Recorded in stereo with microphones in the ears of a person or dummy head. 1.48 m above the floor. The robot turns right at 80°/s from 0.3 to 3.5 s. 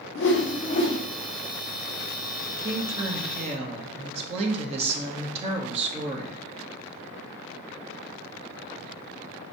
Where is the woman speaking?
115° right, 0.8 m; by 6.4 s 35° right, 0.8 m.